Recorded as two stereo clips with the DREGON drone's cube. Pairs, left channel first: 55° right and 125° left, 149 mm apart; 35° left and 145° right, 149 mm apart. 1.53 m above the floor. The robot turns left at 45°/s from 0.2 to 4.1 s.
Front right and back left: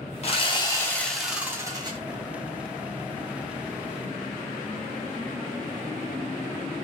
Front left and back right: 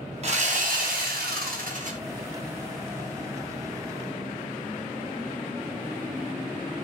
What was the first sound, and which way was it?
Sawing, 100° right.